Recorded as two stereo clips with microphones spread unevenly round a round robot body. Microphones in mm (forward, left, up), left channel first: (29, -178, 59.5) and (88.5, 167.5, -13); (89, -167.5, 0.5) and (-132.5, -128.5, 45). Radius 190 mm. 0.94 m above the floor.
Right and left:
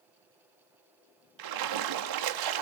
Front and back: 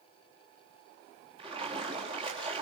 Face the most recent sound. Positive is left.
turn(degrees=90)